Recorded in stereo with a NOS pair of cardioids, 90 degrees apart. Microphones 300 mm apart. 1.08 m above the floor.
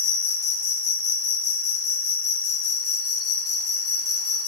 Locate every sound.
0.0 s an insect: 50° left, 0.8 m